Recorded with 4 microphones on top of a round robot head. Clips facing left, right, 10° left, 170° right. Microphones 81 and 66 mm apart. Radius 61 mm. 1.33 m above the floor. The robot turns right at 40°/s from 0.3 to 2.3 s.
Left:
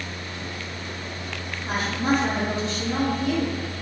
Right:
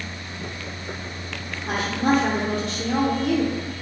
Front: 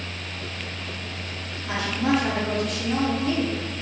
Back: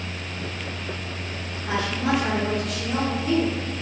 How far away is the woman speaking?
About 1.1 m.